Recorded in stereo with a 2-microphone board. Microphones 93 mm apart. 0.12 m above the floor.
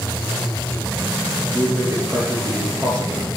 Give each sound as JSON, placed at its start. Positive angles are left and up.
{"t": 1.5, "sound": "a man speaking", "side_deg": 5, "distance_m": 3.0}